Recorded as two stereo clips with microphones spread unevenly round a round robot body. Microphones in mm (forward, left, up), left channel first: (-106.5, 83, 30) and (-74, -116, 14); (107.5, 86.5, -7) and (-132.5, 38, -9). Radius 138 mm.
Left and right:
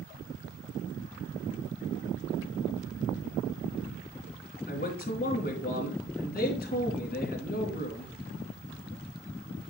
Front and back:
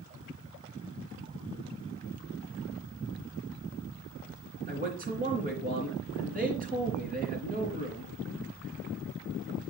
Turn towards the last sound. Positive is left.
turn(degrees=135)